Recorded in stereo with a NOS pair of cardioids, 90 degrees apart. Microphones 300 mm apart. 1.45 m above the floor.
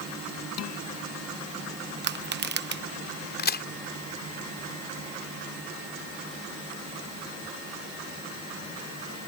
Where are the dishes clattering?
55° left.